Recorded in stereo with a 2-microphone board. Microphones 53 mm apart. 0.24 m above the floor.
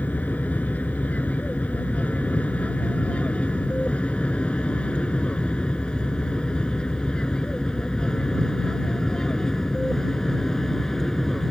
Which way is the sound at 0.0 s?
30° left (ahead or behind).